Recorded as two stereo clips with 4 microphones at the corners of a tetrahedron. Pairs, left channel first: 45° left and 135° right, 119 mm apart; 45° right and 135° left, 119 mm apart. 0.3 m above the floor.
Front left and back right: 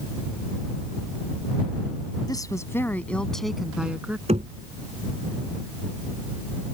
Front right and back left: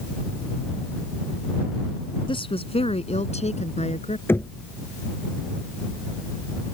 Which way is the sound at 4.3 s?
115° right.